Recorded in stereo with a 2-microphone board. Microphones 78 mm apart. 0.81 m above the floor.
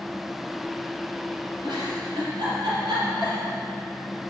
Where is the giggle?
70° right (ahead or behind), 4 m.